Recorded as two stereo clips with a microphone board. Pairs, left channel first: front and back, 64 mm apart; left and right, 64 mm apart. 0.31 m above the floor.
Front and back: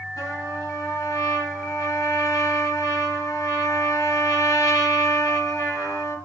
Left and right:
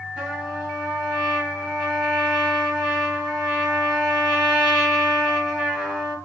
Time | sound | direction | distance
0.2 | a trumpet | 15° right | 4 m